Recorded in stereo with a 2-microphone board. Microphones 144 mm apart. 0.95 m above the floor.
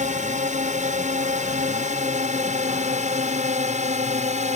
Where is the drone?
55° right (ahead or behind).